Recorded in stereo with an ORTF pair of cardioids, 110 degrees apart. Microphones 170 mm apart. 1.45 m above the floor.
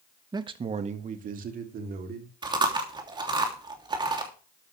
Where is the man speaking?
25° right, 1.6 m; by 2.3 s 70° right, 4 m.